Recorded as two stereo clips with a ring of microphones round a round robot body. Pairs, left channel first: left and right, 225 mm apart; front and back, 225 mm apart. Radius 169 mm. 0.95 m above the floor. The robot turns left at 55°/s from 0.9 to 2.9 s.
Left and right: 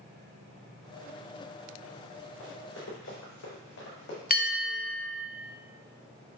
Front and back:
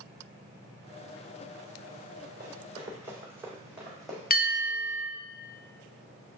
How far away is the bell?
About 0.6 m.